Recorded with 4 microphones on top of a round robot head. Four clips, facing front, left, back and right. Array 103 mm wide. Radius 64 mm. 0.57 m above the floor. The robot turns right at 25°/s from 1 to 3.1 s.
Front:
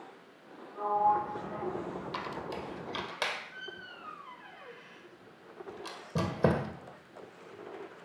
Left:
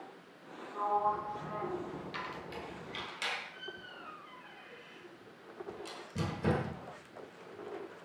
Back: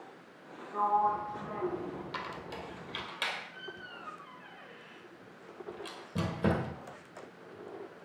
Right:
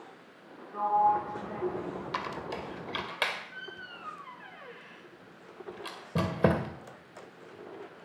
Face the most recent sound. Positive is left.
turn(degrees=-60)